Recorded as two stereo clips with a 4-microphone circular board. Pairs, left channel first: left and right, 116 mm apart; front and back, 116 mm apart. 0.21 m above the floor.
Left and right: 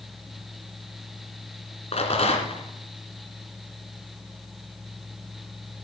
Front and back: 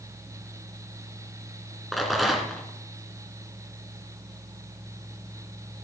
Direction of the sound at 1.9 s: 90° left.